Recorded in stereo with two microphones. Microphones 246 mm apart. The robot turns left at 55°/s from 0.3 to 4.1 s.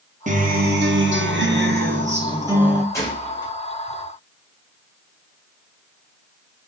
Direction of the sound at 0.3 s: 40° right.